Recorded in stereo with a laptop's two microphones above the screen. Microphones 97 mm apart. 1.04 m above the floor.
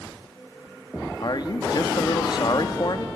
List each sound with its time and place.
1.2 s a man speaking: 50° left (ahead or behind), 1.8 m